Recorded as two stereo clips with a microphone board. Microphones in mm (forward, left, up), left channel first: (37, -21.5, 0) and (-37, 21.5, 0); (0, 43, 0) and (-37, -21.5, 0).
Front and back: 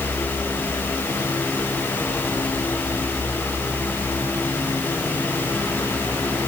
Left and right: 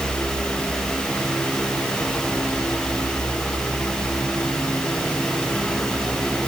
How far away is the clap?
No clap in this recording.